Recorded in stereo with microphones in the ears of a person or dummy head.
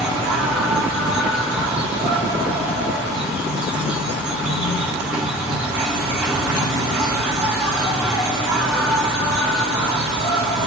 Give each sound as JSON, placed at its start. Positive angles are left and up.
{"t": 0.0, "sound": "an insect", "side_deg": -5, "distance_m": 2.0}